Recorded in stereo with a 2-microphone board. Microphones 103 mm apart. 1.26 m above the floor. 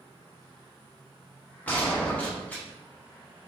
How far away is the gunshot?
About 0.9 m.